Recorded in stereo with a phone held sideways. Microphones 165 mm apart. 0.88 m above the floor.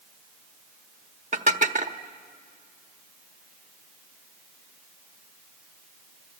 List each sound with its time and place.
1.3 s dishes clattering: 50° right (ahead or behind), 1.0 m